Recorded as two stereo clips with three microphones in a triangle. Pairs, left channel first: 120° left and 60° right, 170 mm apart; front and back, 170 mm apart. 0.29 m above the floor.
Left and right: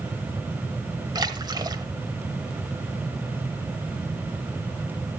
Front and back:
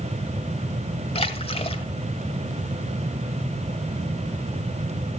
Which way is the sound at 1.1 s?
15° right.